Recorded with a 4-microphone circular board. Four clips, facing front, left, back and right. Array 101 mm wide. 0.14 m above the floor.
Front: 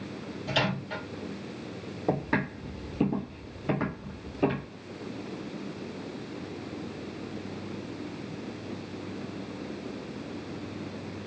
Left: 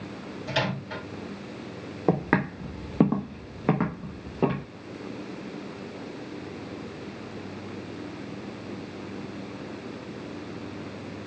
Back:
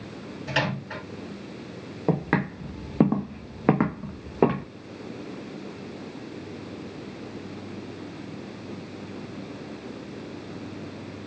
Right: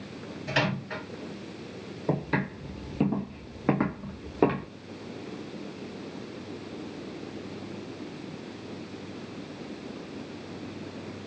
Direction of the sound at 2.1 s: 110° left.